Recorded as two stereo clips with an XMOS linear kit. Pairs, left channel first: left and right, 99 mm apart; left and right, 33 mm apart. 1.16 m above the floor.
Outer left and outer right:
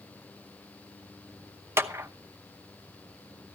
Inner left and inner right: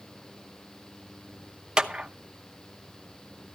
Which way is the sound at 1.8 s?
25° right (ahead or behind).